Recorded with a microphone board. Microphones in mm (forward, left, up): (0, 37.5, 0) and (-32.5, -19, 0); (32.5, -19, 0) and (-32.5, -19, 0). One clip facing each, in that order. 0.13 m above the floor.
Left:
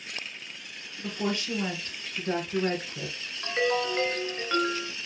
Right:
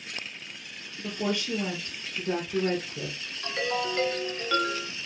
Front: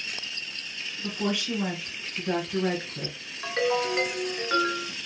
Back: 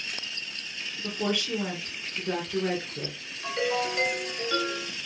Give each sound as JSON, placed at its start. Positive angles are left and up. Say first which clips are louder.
{"t": 1.0, "sound": "a woman speaking", "louder": "right 1 dB, even", "azimuth_deg": 70, "distance_m": 1.8}
{"t": 3.4, "sound": "a ringtone", "louder": "left 3 dB, front 2 dB", "azimuth_deg": 0, "distance_m": 0.8}